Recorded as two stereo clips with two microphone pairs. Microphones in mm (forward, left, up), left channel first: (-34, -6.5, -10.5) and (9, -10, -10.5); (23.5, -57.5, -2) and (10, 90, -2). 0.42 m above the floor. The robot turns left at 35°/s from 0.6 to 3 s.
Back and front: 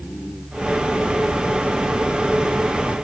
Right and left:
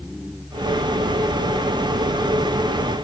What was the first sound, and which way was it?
Only background noise.